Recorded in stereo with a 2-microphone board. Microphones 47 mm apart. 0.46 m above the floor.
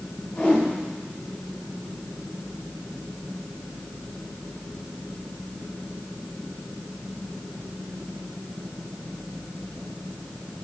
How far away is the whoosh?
About 3.5 m.